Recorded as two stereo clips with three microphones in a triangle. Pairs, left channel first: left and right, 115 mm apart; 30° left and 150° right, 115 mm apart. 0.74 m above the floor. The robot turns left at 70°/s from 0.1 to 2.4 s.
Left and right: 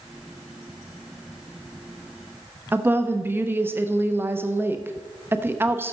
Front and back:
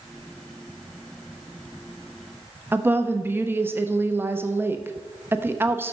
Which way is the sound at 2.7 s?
120° right.